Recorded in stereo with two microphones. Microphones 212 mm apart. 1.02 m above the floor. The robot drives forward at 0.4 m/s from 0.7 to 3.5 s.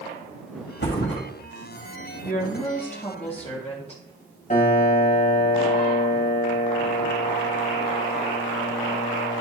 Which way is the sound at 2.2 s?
35° left (ahead or behind).